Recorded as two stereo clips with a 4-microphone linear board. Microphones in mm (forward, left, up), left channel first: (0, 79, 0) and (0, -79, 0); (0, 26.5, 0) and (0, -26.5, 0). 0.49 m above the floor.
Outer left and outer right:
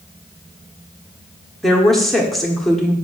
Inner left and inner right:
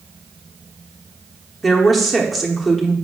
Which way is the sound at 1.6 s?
Centre (ahead or behind).